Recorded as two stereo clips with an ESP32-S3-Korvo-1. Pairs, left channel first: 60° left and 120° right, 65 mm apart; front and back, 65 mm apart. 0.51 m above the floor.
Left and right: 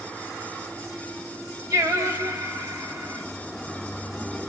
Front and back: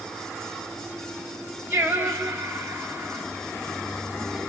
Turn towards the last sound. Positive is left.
turn(degrees=-130)